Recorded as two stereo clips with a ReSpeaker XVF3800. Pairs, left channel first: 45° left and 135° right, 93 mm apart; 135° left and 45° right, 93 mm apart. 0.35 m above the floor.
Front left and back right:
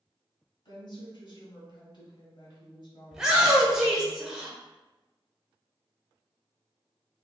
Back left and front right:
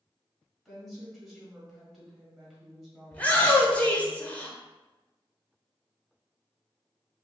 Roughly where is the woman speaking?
Ahead left.